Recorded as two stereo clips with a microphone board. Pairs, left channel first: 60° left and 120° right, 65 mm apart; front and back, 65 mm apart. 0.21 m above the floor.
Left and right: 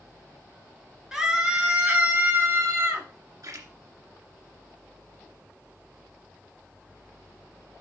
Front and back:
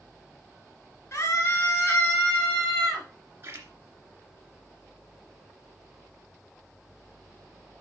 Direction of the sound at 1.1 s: 40° right.